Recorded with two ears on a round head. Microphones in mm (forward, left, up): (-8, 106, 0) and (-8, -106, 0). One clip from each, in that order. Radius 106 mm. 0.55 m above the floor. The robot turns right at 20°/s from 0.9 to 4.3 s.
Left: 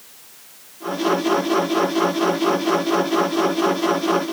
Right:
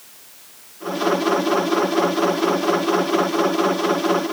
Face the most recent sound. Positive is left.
No sound to turn to.